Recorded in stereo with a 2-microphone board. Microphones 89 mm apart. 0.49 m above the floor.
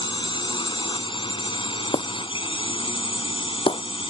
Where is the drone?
60° left (ahead or behind); by 4.1 s 75° left (ahead or behind).